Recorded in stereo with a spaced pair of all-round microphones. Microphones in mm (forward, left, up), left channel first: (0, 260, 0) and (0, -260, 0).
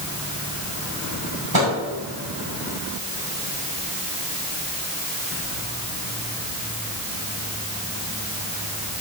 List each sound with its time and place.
1.5 s a microwave: 45° right (ahead or behind), 5.5 m